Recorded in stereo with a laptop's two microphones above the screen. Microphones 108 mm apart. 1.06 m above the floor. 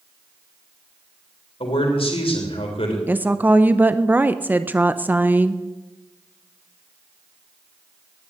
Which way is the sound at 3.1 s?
15° right (ahead or behind).